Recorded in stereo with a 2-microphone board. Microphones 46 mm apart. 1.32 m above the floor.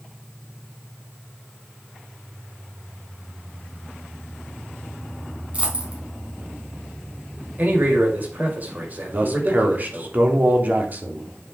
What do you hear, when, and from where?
5.5 s a dropped coin: 30° right (ahead or behind), 4.5 m
7.6 s a man speaking: 40° right (ahead or behind), 6.5 m
9.1 s a man speaking: 40° right (ahead or behind), 3 m